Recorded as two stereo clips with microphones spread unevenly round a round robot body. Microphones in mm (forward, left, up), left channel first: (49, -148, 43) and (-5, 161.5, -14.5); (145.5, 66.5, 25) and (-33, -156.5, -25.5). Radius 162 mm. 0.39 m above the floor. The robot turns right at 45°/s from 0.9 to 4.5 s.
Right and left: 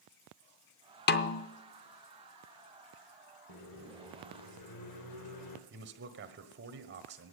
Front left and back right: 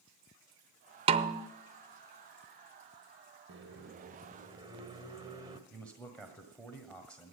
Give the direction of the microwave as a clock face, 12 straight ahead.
4 o'clock.